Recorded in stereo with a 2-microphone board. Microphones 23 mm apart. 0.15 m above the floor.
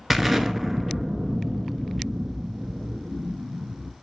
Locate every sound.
0.1 s an explosion: 10° right (ahead or behind), 0.6 m